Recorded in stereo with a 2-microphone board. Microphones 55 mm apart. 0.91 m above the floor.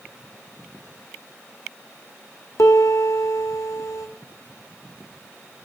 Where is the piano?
80° left, 1.4 m.